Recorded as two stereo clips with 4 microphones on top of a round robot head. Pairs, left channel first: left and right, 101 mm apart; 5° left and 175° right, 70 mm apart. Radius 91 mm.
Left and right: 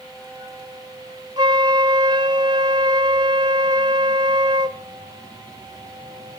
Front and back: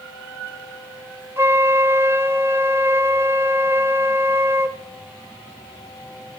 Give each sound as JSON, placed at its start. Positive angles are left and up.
{"t": 1.4, "sound": "a flute", "azimuth_deg": -125, "distance_m": 0.5}